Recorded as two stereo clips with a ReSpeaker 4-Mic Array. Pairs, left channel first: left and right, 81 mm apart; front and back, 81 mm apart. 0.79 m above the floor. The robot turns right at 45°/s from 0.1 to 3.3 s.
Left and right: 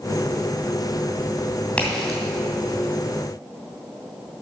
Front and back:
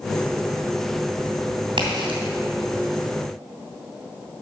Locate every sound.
1.8 s a crack: 165° left, 2.5 m; by 2.2 s 175° right, 2.5 m